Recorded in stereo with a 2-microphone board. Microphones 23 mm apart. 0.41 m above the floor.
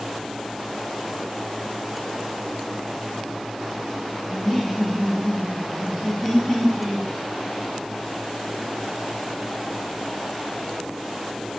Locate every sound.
4.3 s laughter: centre (ahead or behind), 1.3 m